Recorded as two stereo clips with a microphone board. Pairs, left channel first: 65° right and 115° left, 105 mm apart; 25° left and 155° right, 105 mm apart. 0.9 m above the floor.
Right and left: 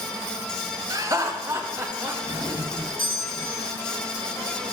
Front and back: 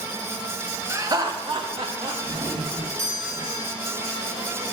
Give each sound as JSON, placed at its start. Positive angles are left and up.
{"t": 0.9, "sound": "laughter", "azimuth_deg": 150, "distance_m": 0.7}
{"t": 2.2, "sound": "a doorbell", "azimuth_deg": -100, "distance_m": 1.7}